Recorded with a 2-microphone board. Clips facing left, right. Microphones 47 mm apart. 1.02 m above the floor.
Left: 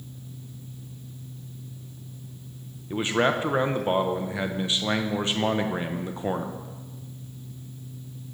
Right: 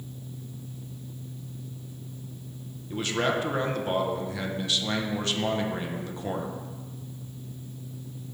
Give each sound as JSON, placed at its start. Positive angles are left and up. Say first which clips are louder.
{"t": 2.9, "sound": "a man speaking", "louder": "left 3 dB", "side_deg": 25, "distance_m": 0.6}